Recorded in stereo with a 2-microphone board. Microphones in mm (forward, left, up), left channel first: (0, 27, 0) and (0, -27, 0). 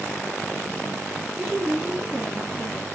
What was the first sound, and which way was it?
A woman speaking, 5° right (ahead or behind).